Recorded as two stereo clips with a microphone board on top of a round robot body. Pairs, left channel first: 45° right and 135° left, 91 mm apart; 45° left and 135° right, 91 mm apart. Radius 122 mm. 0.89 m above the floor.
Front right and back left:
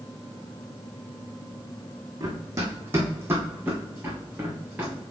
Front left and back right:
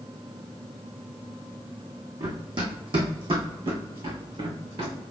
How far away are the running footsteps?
About 1.7 m.